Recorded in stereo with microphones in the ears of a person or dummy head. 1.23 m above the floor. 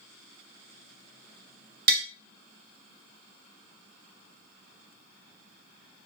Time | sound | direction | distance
1.9 | tapping | 55° right (ahead or behind) | 1.4 m